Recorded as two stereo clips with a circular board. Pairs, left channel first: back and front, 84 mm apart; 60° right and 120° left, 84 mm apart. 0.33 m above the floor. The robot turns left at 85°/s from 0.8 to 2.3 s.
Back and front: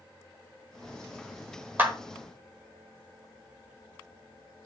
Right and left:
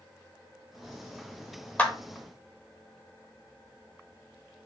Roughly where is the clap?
Ahead.